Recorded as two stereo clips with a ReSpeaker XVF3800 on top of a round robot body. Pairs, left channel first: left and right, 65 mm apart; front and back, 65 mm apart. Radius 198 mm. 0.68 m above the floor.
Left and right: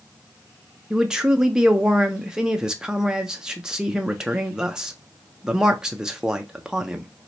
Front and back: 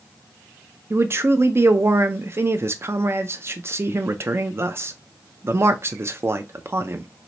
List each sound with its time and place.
0.9 s a man speaking: 165° right, 0.5 m